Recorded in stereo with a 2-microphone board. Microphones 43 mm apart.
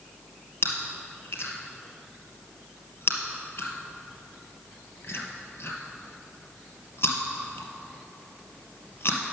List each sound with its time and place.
0.6 s chewing: 55° left (ahead or behind), 1.8 m